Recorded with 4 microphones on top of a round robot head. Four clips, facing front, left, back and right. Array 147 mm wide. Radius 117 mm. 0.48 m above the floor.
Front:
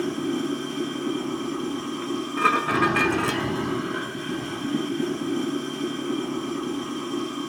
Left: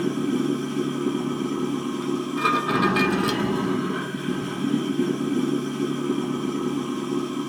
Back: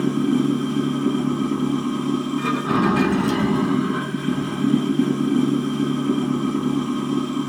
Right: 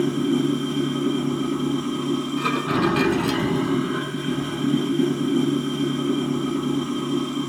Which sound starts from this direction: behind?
Running water, at 0.0 s.